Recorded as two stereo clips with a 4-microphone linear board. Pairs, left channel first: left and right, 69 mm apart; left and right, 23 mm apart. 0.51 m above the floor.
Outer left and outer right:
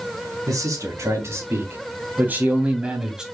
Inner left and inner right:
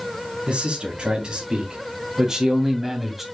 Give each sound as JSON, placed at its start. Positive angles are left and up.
{"t": 0.5, "sound": "a man speaking", "side_deg": -50, "distance_m": 4.0}